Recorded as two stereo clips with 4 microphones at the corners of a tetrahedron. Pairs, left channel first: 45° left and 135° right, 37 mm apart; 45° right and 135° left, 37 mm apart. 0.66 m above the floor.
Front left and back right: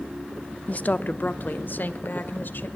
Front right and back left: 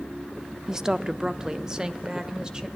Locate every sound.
0.7 s a woman speaking: 75° left, 0.9 m; by 2.7 s 70° left, 2.5 m